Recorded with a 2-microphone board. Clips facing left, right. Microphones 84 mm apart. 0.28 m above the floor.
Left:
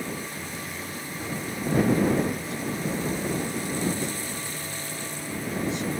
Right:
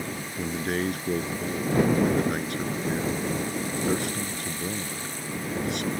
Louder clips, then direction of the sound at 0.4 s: Right 8 dB; 70° right (ahead or behind).